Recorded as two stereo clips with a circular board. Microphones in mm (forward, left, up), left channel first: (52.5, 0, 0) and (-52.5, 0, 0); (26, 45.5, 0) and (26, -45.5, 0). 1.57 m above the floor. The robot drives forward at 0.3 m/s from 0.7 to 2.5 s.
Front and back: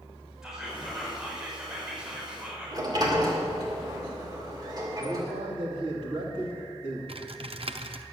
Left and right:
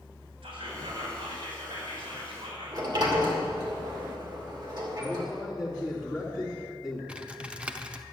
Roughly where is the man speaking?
Behind.